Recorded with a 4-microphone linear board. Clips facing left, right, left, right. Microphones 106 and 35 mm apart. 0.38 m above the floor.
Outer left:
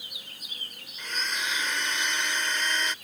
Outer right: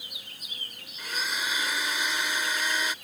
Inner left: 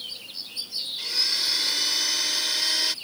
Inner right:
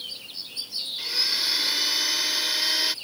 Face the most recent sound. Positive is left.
turn(degrees=-10)  # may be behind; listen again after turning